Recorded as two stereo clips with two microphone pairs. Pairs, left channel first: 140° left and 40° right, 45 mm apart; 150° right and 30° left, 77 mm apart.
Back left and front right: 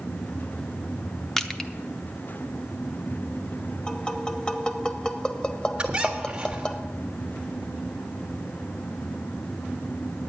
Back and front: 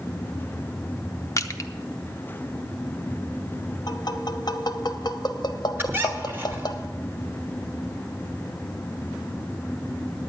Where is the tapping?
155° right, 1.0 m.